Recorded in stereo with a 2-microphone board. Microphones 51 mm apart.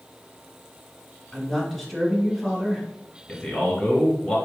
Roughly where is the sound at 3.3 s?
Centre.